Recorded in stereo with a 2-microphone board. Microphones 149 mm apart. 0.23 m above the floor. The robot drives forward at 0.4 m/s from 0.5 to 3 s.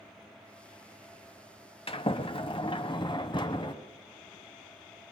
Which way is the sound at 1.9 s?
40° left (ahead or behind).